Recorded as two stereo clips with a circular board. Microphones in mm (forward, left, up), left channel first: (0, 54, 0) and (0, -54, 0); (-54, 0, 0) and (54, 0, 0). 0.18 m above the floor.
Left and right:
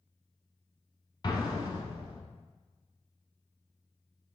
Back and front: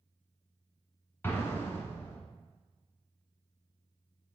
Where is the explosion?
120° left, 0.7 m.